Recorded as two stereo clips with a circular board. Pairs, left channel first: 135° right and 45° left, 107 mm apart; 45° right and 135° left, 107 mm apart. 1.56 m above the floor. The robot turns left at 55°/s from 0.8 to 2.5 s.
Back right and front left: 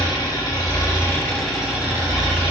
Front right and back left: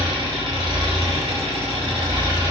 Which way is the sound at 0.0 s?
175° left.